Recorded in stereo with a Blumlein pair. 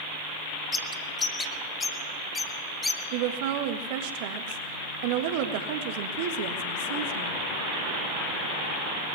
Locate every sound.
0.7 s a bird: 10° left, 1.4 m
3.1 s a woman speaking: 50° right, 1.7 m